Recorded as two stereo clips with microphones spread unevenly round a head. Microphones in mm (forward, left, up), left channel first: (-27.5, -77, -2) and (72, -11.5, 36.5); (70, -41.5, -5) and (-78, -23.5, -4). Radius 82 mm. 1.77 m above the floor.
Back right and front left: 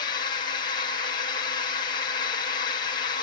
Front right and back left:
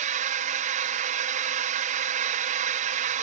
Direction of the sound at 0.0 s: 170° right.